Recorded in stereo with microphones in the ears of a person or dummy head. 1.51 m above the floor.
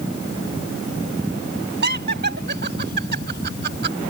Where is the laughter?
45° right (ahead or behind).